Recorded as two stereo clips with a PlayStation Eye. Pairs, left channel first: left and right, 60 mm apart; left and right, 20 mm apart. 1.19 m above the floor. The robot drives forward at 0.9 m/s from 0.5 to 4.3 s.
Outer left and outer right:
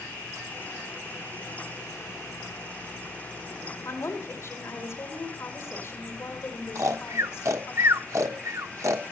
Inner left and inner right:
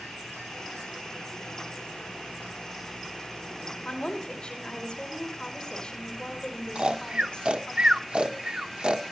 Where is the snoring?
60° right (ahead or behind), 0.8 m.